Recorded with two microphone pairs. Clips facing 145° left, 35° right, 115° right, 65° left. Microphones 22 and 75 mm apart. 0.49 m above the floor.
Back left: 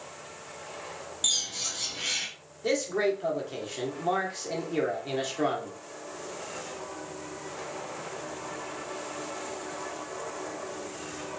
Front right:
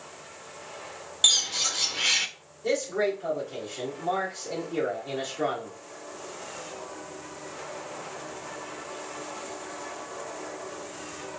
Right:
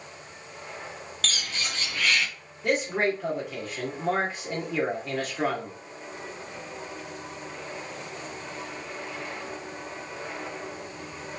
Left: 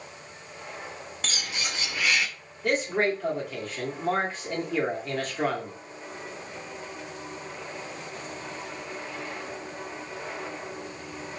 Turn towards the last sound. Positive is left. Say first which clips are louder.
# even, even
turn(degrees=165)